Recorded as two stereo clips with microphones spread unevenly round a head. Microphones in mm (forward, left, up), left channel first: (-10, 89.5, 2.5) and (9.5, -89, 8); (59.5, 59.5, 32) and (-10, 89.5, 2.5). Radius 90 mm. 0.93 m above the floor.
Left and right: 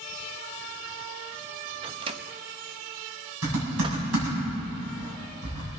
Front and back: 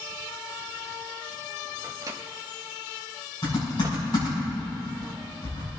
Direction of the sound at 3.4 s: 85° right.